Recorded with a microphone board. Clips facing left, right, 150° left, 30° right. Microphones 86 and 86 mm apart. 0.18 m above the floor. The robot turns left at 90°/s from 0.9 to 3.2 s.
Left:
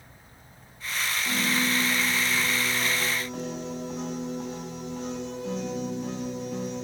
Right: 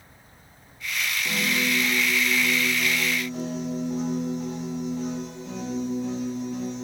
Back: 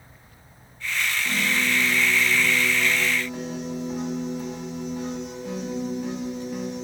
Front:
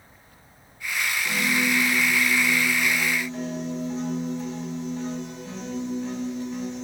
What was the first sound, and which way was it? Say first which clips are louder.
A piano: right 1 dB, front 2 dB; 115° right.